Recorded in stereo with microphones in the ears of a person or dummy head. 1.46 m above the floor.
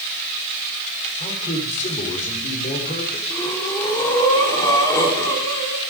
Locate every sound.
1.2 s a man speaking: 40° left (ahead or behind), 4 m
3.3 s breathing: 20° left (ahead or behind), 4.5 m